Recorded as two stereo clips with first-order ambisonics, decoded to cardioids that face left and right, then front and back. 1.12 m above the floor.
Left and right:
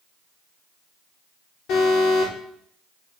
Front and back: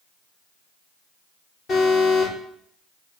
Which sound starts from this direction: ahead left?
An alarm, at 1.7 s.